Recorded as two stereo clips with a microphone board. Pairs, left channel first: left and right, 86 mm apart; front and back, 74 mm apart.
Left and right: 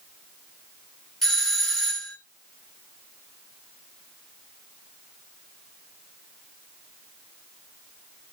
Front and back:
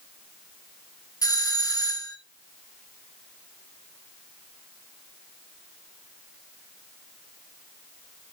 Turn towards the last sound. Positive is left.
turn(degrees=5)